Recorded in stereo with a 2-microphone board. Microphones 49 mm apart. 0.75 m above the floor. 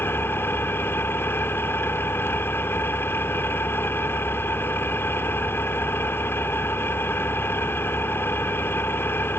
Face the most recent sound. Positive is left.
turn(degrees=55)  # may be behind; listen again after turning